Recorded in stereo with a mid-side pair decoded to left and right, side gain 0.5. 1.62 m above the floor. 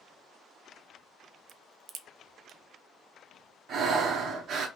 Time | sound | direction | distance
1.5 | a crack | 65° right | 0.5 m
3.7 | breathing | 55° right | 0.8 m